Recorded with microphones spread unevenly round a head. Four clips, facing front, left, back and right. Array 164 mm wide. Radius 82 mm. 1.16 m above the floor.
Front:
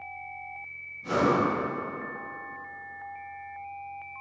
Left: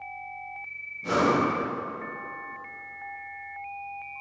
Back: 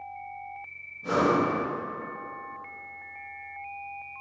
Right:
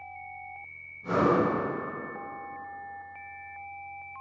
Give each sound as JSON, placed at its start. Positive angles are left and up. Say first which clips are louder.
{"t": 1.0, "sound": "breathing", "louder": "left 1 dB, back 1 dB", "azimuth_deg": 110, "distance_m": 0.8}